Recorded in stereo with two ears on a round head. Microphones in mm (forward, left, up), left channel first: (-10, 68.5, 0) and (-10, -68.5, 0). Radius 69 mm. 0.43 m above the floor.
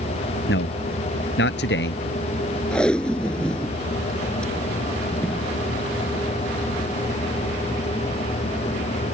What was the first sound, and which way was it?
A man speaking, 80° left.